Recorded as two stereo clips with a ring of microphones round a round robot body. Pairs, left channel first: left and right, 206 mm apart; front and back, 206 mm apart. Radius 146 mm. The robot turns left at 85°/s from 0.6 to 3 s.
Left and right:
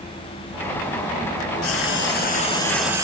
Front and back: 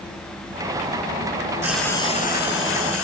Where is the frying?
105° left, 2.5 m; by 3.0 s 15° right, 2.5 m.